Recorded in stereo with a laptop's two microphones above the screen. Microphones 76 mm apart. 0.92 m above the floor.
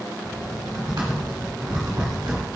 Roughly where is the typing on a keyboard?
Right.